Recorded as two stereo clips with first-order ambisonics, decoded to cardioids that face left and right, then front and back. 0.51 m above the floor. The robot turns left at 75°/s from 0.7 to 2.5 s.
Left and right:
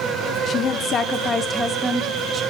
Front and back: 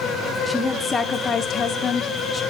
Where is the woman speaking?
75° left, 0.8 m; by 2.4 s 55° right, 0.8 m.